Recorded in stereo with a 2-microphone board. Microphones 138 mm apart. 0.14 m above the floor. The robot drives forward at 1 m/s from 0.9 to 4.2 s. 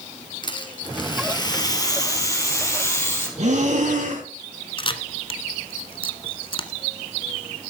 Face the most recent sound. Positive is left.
turn(degrees=40)  # may be behind; listen again after turning